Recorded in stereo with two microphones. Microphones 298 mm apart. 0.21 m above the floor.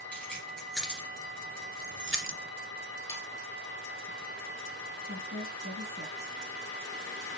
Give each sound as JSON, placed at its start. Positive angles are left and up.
{"t": 0.1, "sound": "keys jangling", "side_deg": 5, "distance_m": 3.0}
{"t": 3.1, "sound": "sawing", "side_deg": -5, "distance_m": 2.5}
{"t": 5.0, "sound": "a woman speaking", "side_deg": -35, "distance_m": 2.5}